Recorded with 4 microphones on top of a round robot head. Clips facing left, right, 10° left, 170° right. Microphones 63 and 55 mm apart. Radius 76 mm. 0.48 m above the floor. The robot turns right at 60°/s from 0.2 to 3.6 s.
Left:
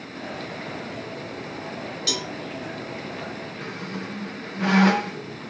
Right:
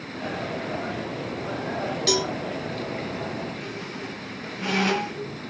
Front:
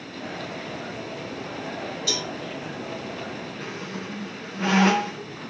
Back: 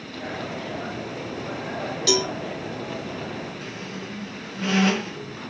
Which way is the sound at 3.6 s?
45° left.